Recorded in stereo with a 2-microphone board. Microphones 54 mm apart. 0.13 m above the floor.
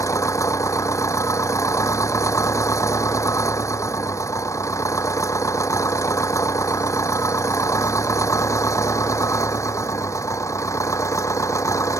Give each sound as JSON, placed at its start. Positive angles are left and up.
{"t": 0.0, "sound": "an engine running", "side_deg": 70}